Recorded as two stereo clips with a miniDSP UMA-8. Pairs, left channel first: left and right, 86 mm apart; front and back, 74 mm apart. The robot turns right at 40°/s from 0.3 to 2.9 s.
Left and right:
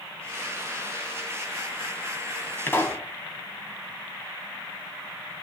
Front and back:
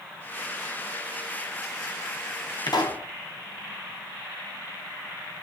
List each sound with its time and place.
2.7 s a pop: 25° left, 3 m; by 3.1 s 35° left, 3 m